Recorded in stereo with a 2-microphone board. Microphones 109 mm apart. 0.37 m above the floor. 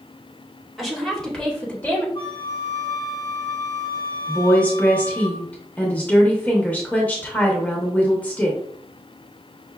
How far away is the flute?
About 1.7 m.